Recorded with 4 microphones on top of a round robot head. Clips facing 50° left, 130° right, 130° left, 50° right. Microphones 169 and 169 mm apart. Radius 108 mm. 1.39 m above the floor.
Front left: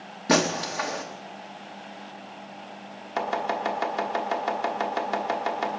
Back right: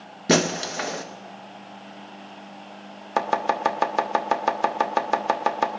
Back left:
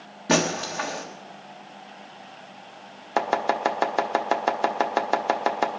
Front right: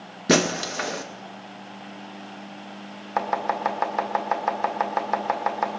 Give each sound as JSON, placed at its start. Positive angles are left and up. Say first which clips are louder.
{"t": 0.3, "sound": "breaking glass", "louder": "back right 2 dB, front right 2 dB", "azimuth_deg": -80, "distance_m": 0.7}
{"t": 3.2, "sound": "chopping", "louder": "back right 4 dB, back left 2 dB", "azimuth_deg": -170, "distance_m": 1.1}